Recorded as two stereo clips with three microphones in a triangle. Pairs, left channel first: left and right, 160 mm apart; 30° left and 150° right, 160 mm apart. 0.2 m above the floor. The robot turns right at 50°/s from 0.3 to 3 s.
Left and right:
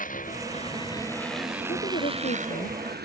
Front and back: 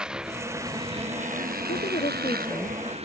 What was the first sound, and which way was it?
A motorcycle, 125° left.